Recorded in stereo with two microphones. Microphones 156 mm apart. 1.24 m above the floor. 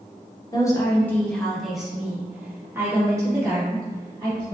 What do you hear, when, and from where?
0.5 s a woman speaking: 25° left (ahead or behind), 1.1 m; by 4.5 s 25° right (ahead or behind), 2.5 m